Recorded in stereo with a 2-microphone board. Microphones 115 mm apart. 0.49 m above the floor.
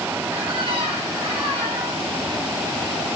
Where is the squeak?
55° right (ahead or behind), 0.7 m.